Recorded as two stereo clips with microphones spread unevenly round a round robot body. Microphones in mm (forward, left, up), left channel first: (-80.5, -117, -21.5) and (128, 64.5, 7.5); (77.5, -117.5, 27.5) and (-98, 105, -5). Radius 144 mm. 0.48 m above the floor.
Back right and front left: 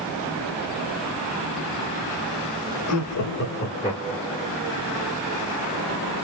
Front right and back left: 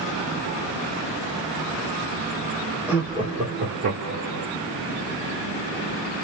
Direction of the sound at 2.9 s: 150° right.